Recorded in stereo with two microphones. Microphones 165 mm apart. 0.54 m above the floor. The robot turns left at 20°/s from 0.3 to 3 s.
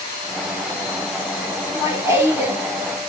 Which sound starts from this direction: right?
Laughter, at 1.6 s.